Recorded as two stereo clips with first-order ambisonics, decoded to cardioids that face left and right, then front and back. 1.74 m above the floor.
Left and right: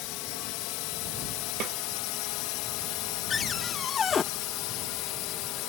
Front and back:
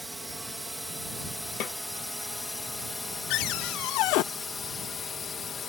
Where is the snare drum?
45° right.